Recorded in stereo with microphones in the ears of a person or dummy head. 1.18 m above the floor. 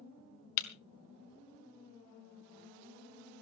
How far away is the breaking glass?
About 1.2 m.